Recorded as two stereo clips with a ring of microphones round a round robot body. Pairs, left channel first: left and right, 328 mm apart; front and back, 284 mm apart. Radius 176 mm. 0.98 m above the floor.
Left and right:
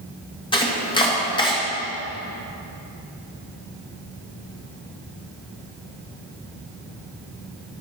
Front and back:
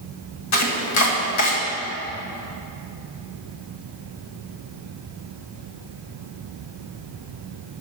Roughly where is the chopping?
Ahead.